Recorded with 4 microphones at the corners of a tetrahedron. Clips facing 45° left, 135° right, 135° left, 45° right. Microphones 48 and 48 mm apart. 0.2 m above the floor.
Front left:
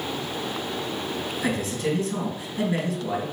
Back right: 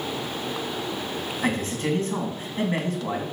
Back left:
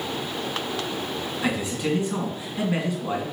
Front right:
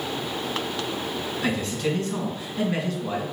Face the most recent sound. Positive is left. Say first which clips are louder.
# back right 1 dB, even
turn(degrees=-155)